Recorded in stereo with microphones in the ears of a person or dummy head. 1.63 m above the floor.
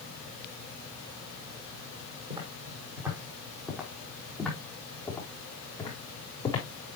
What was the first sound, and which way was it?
Footsteps, 20° right (ahead or behind).